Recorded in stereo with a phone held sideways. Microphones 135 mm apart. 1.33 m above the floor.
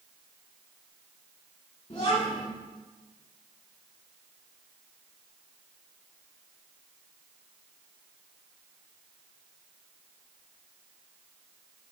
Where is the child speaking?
40° left (ahead or behind), 2.5 m.